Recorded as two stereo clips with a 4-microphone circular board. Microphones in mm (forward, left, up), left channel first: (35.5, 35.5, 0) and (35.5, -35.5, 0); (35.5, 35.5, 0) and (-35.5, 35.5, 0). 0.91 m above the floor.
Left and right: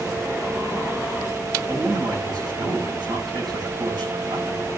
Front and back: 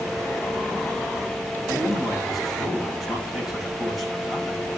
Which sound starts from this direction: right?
A man speaking, at 1.7 s.